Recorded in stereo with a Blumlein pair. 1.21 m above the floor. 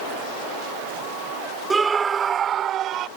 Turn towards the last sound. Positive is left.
turn(degrees=-35)